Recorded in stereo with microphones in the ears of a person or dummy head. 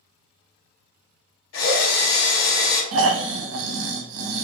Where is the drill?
80° left, 2 m.